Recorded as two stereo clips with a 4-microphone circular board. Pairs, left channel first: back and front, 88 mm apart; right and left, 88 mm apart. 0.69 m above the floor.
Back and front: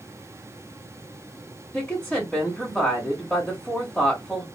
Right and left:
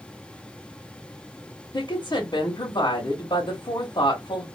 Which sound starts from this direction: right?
A woman speaking, at 1.7 s.